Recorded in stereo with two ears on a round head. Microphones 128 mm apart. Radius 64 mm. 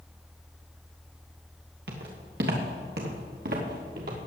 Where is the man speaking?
I don't hear a man speaking.